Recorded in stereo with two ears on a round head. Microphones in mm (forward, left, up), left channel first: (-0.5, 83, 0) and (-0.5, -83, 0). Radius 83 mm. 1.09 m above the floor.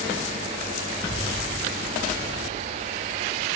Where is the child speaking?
50° left (ahead or behind), 9 m; by 3.2 s 60° left (ahead or behind), 8 m.